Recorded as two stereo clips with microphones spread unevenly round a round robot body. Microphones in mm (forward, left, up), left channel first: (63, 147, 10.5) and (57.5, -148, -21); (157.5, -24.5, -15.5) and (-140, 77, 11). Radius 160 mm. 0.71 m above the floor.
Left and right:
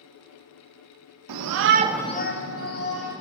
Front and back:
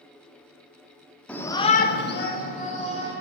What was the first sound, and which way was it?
A shout, 105° right.